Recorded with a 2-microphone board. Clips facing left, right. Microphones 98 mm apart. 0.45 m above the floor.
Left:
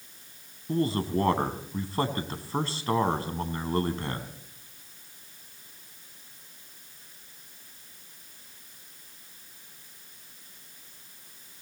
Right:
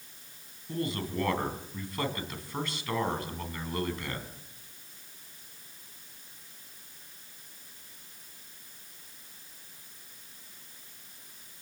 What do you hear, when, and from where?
0.7 s a man speaking: 35° left (ahead or behind), 3.5 m